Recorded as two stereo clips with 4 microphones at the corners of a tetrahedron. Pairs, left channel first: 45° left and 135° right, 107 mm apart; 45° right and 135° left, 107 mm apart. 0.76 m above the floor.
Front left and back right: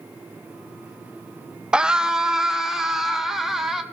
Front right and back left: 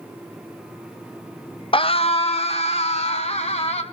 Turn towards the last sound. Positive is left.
turn(degrees=-45)